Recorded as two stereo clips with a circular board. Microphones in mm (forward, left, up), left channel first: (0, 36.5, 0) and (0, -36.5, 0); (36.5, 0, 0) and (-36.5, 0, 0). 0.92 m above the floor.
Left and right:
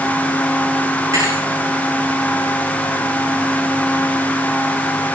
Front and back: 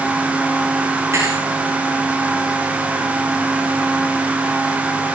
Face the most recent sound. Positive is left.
turn(degrees=-130)